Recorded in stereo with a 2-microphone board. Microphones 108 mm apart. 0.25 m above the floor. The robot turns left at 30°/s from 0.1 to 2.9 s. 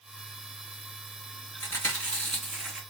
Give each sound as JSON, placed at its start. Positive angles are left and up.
{"t": 1.6, "sound": "chewing", "azimuth_deg": 25, "distance_m": 2.0}